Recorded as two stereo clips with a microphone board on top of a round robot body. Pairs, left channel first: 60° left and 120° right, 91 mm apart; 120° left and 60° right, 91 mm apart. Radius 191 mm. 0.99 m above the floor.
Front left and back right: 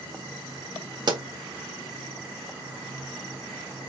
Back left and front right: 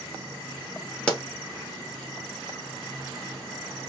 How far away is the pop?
About 1.6 m.